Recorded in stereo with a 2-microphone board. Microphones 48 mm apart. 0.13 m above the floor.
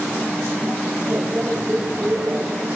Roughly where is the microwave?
Right.